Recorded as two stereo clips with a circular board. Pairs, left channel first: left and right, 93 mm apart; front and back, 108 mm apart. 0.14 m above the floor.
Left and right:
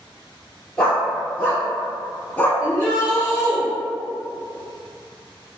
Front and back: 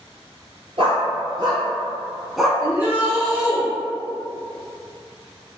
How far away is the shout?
About 1.4 m.